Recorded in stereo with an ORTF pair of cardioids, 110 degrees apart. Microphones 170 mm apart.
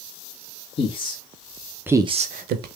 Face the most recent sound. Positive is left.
turn(degrees=-75)